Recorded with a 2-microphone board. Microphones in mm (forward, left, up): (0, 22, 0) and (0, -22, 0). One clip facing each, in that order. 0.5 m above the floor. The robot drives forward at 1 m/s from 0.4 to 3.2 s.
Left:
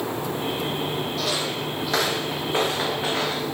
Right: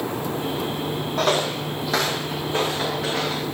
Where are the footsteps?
50° right (ahead or behind), 0.9 m; by 3.4 s 25° left (ahead or behind), 3 m.